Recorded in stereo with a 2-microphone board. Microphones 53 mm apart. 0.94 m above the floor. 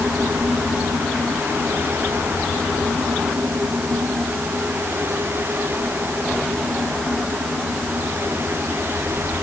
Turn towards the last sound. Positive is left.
No sound to turn to.